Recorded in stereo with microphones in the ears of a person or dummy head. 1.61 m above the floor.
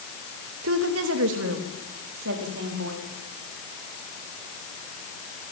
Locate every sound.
0.6 s a woman speaking: 80° right, 2.5 m; by 3.0 s 75° right (ahead or behind), 4.5 m